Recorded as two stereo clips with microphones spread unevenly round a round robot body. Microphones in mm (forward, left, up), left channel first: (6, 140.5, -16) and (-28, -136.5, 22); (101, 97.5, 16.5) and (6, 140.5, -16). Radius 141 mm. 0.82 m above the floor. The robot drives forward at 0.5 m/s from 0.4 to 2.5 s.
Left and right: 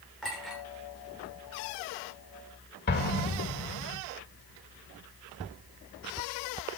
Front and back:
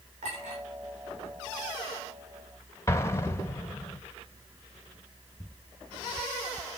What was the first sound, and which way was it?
A clink, 170° left.